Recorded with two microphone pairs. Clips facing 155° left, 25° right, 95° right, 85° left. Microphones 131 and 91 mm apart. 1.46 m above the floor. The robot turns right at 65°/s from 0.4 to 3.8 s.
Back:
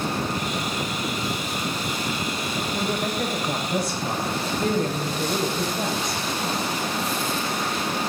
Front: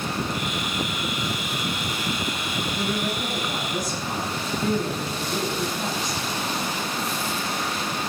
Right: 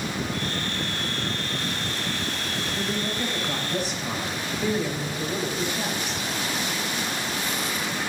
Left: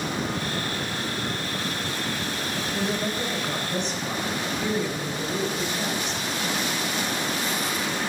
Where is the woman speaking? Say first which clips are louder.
Back 2 dB, left 2 dB; 115° left, 6.5 m; by 6.3 s straight behind, 6.5 m.